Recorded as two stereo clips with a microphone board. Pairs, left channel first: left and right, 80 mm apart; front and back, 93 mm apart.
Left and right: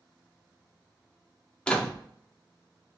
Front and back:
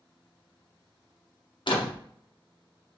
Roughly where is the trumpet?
I don't hear a trumpet.